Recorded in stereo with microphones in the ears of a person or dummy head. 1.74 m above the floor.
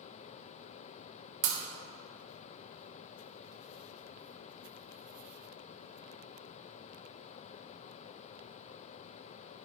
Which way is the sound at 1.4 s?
50° right (ahead or behind).